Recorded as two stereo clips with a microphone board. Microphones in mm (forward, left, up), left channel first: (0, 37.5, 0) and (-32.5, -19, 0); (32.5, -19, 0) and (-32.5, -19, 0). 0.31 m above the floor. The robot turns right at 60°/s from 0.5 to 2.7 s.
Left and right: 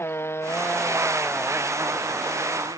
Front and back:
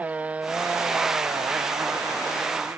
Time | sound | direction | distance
0.0 | a motorcycle | 115° left | ?